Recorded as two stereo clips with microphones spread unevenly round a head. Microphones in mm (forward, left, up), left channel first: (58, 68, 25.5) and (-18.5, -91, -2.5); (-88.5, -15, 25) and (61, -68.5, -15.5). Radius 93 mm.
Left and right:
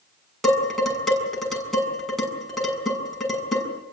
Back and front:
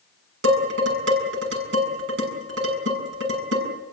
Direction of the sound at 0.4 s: 25° right.